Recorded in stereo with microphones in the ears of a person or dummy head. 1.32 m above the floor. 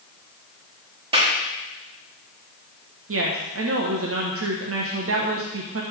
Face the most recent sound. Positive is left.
turn(degrees=-75)  # may be behind; listen again after turning